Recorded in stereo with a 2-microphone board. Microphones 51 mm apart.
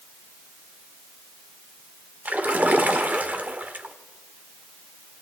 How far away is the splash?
About 1.5 m.